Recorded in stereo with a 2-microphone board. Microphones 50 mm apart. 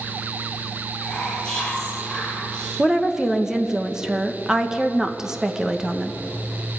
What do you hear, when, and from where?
1.0 s whispering: 10° left (ahead or behind), 8.5 m
2.8 s a woman speaking: 15° right (ahead or behind), 1.5 m